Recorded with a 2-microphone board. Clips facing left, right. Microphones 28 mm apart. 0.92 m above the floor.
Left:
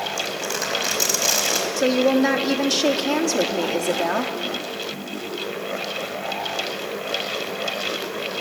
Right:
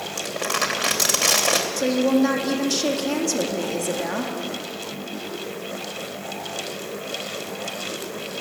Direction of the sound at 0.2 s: 80° right.